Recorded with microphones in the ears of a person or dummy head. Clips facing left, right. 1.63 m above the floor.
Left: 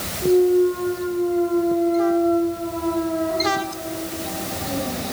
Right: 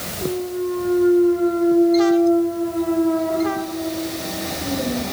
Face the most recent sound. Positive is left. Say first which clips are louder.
# left 8 dB
turn(degrees=-55)  # may be behind; listen again after turning